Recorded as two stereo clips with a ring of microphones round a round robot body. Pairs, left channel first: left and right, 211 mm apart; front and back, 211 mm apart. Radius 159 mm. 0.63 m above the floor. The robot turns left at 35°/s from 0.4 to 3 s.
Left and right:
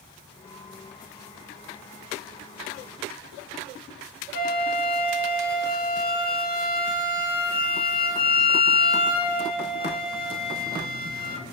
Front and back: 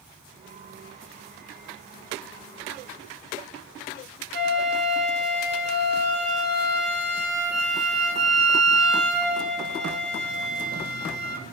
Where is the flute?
140° left, 1.0 m.